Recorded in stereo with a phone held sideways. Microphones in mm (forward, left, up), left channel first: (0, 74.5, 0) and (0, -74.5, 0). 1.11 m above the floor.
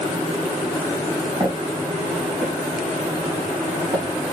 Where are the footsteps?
30° right (ahead or behind), 3 m; by 4.3 s 20° right (ahead or behind), 4.5 m.